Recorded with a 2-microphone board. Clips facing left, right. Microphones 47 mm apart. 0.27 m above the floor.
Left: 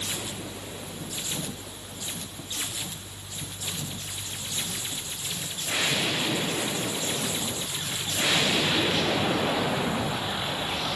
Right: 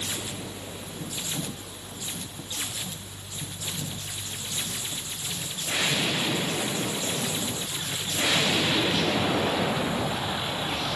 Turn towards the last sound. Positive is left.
No sound to turn to.